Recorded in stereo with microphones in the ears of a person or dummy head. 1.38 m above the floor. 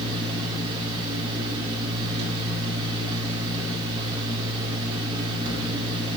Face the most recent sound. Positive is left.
turn(degrees=-25)  # may be behind; listen again after turning